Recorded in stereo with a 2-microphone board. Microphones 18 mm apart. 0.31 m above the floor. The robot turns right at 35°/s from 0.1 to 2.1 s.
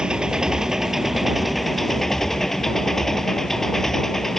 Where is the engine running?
55° right; by 4.4 s 15° left.